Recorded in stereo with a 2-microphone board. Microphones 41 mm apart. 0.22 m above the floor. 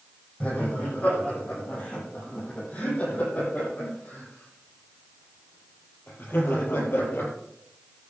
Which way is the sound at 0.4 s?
35° left (ahead or behind).